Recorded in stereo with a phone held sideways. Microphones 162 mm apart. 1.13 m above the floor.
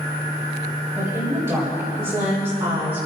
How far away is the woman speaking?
About 4.5 m.